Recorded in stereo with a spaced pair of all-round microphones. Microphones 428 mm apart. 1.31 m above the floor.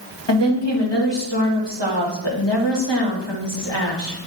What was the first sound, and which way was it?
A woman speaking, 75° left (ahead or behind).